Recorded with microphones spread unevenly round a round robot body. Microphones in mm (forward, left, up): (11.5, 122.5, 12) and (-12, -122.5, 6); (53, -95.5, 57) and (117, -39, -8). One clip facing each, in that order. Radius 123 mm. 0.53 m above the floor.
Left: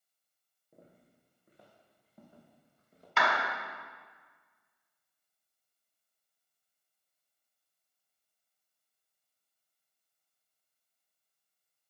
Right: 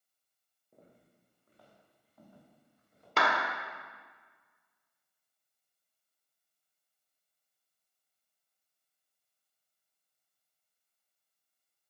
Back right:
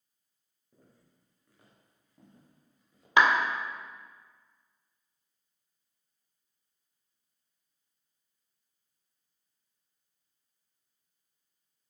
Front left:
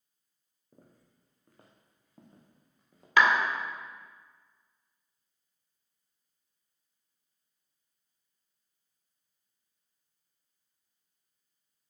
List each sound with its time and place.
0.7 s footsteps: straight ahead, 2.5 m; by 3.1 s 25° left, 4 m
3.2 s a clap: 50° right, 1.5 m